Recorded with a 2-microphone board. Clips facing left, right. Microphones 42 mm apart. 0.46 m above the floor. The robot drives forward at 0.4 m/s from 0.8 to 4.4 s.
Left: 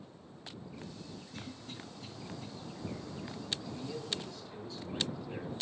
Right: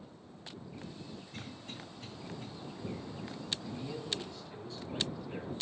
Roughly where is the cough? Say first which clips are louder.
Left 1 dB; right.